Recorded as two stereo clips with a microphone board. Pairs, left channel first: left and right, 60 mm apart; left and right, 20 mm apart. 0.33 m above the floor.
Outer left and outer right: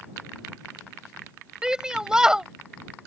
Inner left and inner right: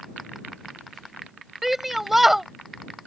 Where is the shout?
10° right (ahead or behind).